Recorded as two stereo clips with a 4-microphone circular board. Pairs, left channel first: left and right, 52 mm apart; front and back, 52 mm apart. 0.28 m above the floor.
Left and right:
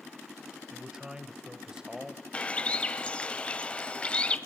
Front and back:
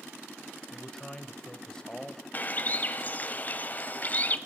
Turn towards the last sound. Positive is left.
turn(degrees=30)